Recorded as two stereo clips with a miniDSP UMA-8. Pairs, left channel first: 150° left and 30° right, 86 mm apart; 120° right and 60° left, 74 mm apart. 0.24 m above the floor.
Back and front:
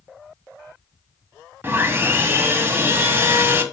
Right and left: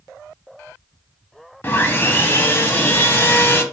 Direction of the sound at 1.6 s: 80° right.